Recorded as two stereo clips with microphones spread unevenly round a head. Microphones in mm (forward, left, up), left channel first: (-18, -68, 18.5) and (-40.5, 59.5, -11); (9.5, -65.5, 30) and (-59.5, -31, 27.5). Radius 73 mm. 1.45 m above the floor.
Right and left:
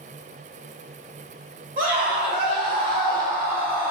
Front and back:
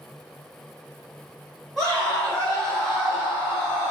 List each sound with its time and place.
1.8 s a scream: 65° left, 1.5 m; by 3.9 s 10° left, 1.0 m